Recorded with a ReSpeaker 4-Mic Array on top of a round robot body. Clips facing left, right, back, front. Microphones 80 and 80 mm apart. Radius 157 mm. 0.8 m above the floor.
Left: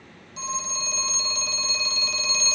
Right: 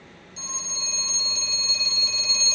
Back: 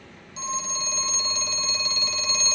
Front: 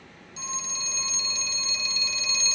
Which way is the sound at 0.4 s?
130° left.